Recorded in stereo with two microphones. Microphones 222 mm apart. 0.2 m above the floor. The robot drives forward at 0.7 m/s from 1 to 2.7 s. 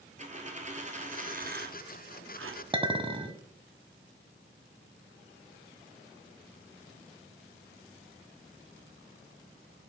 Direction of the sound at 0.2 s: 30° right (ahead or behind).